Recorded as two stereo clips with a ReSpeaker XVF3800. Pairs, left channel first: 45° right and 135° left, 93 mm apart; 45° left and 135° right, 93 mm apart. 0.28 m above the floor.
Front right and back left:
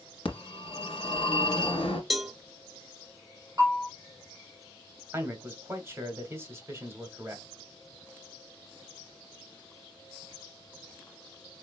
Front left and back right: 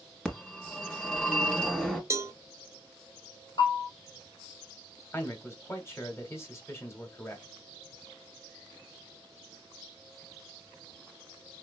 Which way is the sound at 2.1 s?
135° right.